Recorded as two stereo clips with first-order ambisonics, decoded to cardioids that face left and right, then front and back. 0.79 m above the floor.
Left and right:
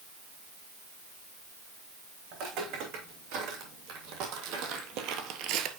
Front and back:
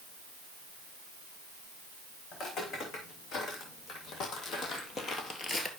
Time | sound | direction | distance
2.3 | footsteps | 55° right | 4 m